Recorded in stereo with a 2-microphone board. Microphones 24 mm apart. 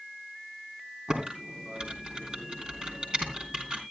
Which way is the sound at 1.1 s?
40° right (ahead or behind).